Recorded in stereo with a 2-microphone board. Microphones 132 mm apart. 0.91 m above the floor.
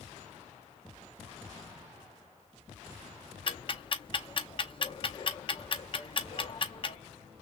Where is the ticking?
40° left (ahead or behind), 0.8 m.